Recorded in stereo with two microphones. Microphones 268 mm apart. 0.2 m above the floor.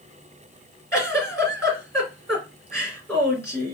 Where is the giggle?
10° left (ahead or behind), 2.5 m.